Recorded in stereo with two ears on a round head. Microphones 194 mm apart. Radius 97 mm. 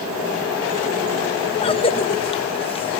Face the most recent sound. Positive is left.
turn(degrees=25)  # may be behind; listen again after turning